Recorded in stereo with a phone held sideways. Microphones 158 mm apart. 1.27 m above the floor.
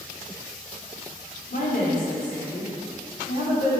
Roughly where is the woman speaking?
Left.